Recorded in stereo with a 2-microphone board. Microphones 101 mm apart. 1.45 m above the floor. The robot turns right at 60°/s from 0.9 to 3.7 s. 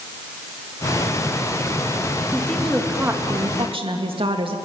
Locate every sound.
2.3 s a woman speaking: 160° left, 2.5 m; by 4.5 s 115° right, 2.5 m